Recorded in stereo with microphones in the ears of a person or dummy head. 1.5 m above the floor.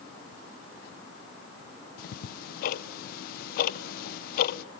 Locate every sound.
2.0 s ticking: 60° left (ahead or behind), 0.8 m